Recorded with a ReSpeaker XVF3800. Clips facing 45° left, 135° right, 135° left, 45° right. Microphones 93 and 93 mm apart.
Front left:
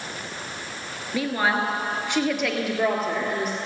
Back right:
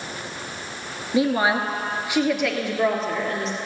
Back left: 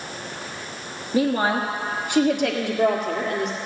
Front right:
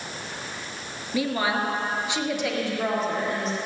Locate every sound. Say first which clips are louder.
1.1 s a woman speaking: back right 4 dB, back left 4 dB; 165° left, 1.5 m; by 3.6 s 125° left, 2.5 m